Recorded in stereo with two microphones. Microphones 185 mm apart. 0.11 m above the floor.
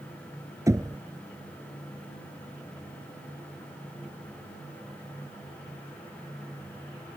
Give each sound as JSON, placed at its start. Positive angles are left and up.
{"t": 0.7, "sound": "knocking", "side_deg": -15}